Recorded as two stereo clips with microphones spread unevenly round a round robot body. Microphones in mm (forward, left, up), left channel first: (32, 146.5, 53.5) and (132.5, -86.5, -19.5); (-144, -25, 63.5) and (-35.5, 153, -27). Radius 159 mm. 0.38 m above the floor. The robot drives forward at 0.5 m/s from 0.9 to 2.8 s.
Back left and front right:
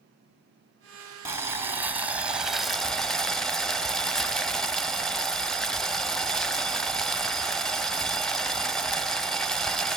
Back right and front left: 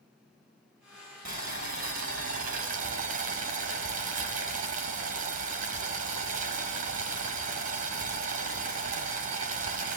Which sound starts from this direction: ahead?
Boiling, at 1.2 s.